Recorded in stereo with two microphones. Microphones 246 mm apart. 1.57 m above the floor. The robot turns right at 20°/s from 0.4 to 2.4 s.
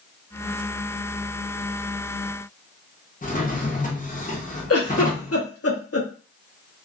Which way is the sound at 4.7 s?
65° left (ahead or behind).